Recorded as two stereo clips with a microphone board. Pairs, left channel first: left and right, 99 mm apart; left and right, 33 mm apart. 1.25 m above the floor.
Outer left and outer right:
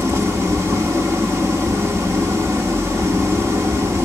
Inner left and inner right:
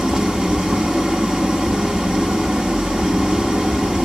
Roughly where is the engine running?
Right.